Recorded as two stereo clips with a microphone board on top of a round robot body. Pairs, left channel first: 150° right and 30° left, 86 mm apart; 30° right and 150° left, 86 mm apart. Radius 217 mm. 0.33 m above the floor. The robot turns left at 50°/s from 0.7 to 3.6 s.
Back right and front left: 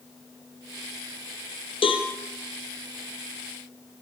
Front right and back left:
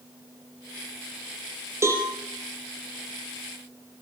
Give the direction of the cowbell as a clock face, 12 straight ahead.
5 o'clock.